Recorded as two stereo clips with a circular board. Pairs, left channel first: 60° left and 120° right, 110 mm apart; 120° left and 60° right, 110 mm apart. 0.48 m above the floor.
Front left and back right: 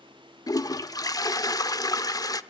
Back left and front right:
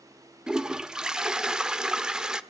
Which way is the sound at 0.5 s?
20° left.